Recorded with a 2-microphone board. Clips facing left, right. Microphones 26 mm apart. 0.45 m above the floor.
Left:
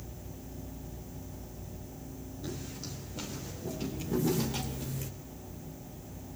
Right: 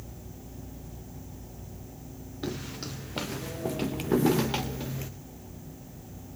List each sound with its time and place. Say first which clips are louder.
2.4 s footsteps: right 6 dB; 75° right (ahead or behind), 3.5 m; by 5.1 s 30° right (ahead or behind), 2.5 m